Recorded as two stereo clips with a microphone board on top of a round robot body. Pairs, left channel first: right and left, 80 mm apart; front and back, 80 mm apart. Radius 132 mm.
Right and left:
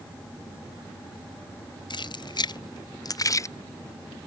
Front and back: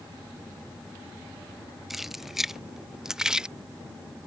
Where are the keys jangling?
95° right; by 3.5 s 105° right.